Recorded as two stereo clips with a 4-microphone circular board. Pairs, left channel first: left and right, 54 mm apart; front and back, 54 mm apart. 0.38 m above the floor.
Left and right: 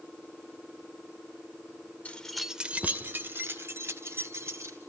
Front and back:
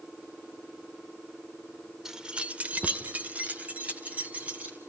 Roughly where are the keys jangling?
Left.